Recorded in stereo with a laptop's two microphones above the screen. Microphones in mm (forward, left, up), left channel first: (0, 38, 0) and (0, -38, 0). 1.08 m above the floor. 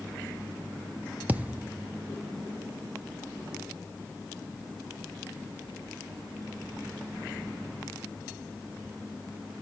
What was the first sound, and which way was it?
A thud, 20° right (ahead or behind).